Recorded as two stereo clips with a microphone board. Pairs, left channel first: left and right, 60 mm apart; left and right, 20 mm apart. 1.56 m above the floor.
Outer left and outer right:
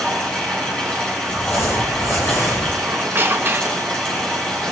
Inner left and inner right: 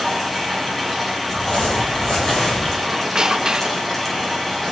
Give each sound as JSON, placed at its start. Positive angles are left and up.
{"t": 0.0, "sound": "running water", "side_deg": 15, "distance_m": 7.0}
{"t": 1.3, "sound": "crumpling", "side_deg": 50, "distance_m": 9.5}
{"t": 2.8, "sound": "a squeak", "side_deg": -40, "distance_m": 1.2}